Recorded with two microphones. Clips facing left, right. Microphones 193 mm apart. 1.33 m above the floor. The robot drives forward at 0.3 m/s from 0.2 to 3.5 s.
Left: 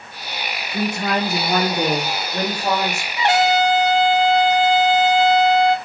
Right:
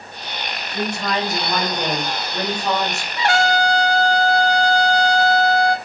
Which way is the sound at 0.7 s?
50° left (ahead or behind).